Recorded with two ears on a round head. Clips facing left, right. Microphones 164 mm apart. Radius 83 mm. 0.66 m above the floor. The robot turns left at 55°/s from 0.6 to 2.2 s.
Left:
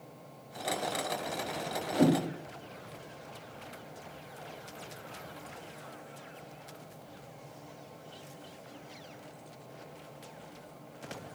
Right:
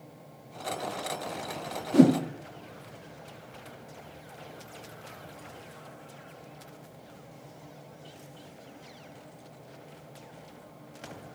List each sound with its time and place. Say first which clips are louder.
1.9 s a whoosh: right 7 dB; 50° right (ahead or behind), 0.7 m